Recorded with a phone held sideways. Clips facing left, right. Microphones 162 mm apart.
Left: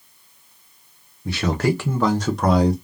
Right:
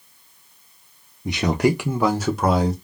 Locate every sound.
1.2 s a man speaking: 20° right (ahead or behind), 0.6 m; by 2.7 s centre (ahead or behind), 1.0 m